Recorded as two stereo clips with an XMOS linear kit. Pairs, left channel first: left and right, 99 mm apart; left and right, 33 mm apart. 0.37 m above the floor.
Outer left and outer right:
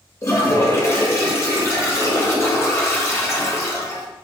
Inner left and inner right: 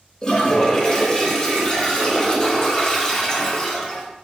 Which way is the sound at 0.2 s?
30° left (ahead or behind).